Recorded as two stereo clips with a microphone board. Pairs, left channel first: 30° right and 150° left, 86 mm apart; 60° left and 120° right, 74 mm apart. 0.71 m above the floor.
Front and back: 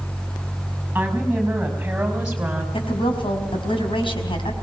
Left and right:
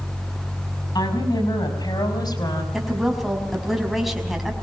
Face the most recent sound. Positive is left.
turn(degrees=-30)